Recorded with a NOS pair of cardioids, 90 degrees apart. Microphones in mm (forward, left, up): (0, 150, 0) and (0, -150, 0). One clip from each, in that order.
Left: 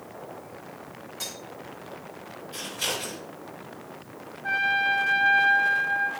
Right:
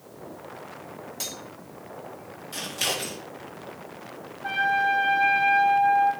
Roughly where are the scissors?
Right.